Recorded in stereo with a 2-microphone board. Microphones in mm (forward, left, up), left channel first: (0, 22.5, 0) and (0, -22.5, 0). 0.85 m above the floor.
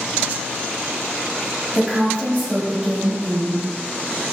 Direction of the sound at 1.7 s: 15° right (ahead or behind).